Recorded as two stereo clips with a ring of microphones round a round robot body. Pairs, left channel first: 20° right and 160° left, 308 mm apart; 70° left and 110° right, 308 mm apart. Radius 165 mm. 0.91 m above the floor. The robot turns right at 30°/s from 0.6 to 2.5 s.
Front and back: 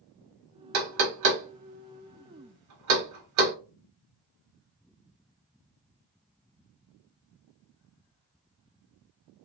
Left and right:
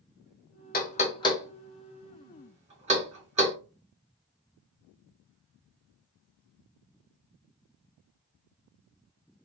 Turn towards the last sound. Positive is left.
turn(degrees=180)